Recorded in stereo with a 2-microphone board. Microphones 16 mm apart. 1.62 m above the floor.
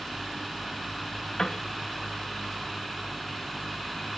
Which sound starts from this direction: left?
A piano, at 1.4 s.